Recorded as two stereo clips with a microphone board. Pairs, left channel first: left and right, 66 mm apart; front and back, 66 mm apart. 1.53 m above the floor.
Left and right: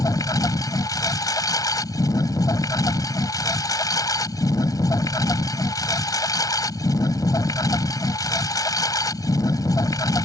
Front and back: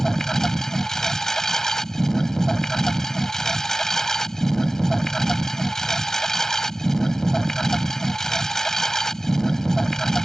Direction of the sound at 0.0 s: 85° left.